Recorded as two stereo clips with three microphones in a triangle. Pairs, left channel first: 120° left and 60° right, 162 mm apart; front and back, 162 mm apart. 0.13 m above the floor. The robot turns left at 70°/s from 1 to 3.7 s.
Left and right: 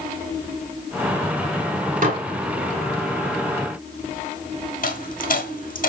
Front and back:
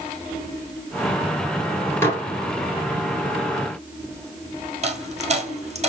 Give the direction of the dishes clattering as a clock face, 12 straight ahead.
2 o'clock.